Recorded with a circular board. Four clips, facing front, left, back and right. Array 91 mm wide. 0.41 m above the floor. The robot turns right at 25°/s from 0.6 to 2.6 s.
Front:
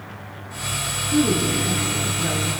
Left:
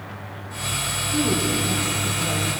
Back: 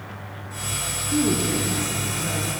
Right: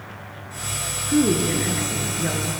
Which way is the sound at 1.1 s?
95° right.